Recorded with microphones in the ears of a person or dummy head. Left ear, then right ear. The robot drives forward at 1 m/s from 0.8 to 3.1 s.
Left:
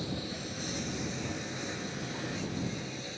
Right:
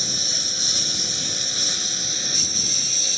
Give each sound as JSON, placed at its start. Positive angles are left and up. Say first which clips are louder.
{"t": 0.0, "sound": "a lawn mower", "louder": "right 17 dB", "side_deg": -70}